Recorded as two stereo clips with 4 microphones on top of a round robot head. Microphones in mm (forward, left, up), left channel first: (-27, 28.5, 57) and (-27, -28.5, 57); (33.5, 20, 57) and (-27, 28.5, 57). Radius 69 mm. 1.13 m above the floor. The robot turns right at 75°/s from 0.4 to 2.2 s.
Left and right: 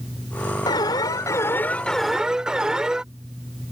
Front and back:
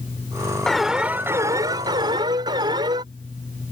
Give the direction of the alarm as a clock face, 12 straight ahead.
10 o'clock.